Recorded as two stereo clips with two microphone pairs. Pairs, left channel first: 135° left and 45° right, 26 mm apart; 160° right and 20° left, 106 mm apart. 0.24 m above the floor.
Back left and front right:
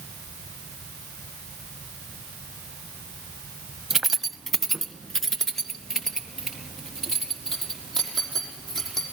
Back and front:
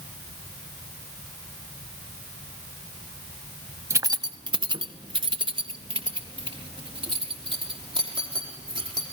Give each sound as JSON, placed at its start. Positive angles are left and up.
{"t": 3.9, "sound": "keys jangling", "azimuth_deg": 5, "distance_m": 0.6}